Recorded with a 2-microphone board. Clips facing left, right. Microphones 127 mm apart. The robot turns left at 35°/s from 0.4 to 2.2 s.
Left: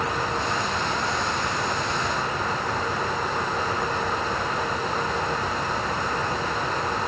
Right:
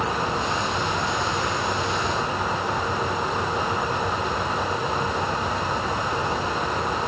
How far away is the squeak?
I don't hear a squeak.